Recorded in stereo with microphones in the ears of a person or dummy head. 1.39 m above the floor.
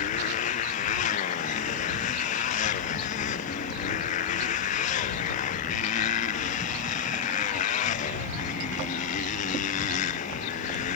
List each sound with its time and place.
0.0 s a motorcycle: 40° left (ahead or behind)